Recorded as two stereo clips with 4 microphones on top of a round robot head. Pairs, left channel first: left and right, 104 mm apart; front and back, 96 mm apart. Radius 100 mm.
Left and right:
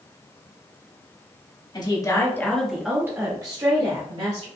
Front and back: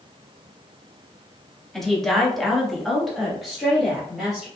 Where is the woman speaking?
85° left, 1.6 m; by 4.5 s 95° right, 2.5 m.